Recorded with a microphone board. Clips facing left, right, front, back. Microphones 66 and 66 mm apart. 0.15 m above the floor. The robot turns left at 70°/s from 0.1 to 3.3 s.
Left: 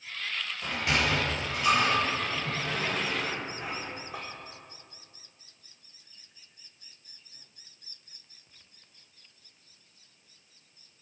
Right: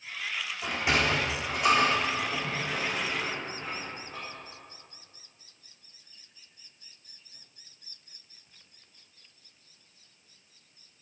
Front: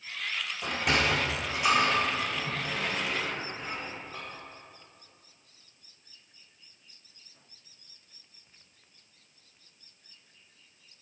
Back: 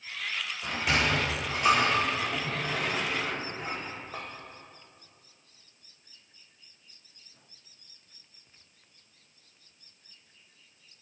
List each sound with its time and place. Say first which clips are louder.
0.6 s a sliding door: right 1 dB, even; 5° right, 4.5 m; by 4.2 s 170° left, 4.5 m